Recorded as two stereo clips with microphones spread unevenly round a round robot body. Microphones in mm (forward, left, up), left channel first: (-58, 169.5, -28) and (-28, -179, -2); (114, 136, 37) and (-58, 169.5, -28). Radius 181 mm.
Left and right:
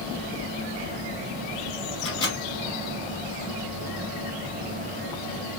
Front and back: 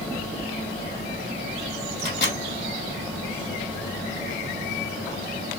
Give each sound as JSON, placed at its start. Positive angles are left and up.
{"t": 2.0, "sound": "a microwave", "azimuth_deg": 20, "distance_m": 1.7}